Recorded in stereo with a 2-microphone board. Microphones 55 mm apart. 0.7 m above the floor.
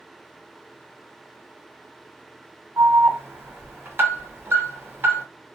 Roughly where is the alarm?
Right.